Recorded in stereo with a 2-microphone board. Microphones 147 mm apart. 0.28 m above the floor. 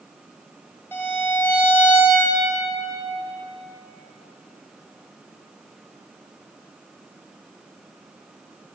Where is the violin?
15° left (ahead or behind), 1.4 m.